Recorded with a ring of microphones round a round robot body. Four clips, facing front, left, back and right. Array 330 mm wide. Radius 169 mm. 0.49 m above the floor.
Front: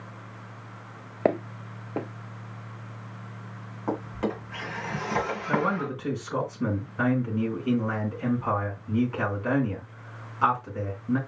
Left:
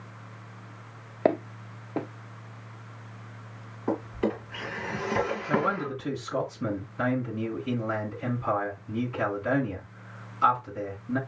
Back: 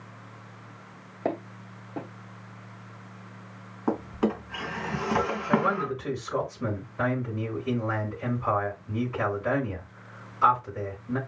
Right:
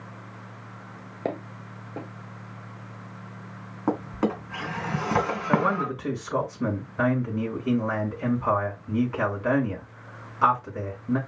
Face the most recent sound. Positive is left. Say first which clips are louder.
# right 6 dB, back 1 dB
turn(degrees=-65)